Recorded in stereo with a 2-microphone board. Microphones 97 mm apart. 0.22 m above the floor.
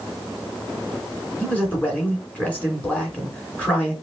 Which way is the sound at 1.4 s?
15° left (ahead or behind).